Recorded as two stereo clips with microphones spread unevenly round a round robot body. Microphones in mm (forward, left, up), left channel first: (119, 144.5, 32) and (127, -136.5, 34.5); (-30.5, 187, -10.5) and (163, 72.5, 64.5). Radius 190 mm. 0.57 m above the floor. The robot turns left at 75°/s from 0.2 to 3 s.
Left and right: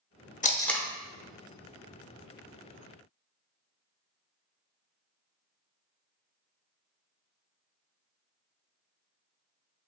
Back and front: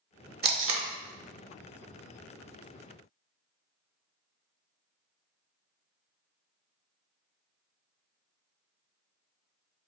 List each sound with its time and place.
0.4 s tape being pulled: 25° left, 0.7 m; by 0.9 s 5° right, 0.7 m